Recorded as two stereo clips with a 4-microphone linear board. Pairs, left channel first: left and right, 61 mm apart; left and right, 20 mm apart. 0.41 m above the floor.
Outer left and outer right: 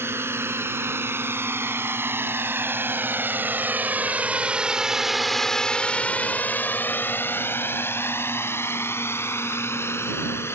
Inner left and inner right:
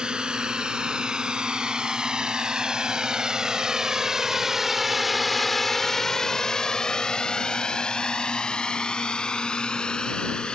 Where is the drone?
45° right (ahead or behind); by 10.6 s 45° left (ahead or behind).